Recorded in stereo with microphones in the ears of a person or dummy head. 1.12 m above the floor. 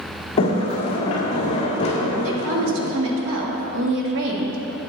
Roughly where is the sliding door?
Left.